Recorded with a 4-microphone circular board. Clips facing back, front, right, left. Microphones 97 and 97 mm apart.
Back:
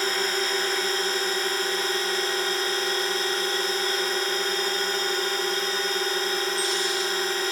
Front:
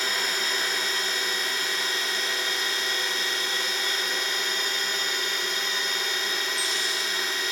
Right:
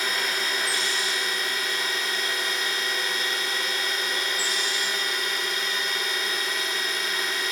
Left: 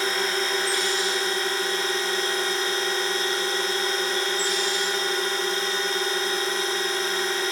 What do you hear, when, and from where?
0.0 s a drone: 140° left